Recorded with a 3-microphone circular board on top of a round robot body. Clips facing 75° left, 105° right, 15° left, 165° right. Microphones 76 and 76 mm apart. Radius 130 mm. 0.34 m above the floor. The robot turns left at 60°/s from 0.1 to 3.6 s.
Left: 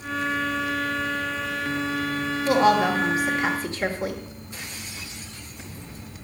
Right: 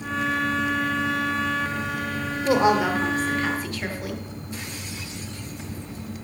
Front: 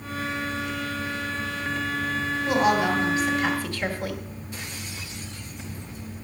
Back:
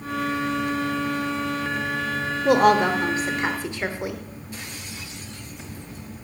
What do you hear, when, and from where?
2.5 s a woman speaking: 165° right, 1.3 m; by 4.2 s 130° left, 1.3 m